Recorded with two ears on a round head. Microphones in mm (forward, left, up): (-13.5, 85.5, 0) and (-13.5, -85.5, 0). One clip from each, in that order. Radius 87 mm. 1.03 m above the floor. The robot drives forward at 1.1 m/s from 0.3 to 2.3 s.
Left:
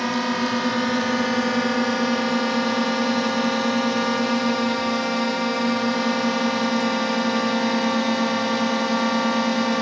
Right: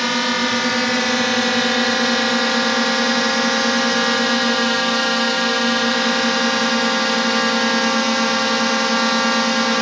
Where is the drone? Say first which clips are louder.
Right 5 dB; 55° right (ahead or behind); by 9.8 s 65° right (ahead or behind).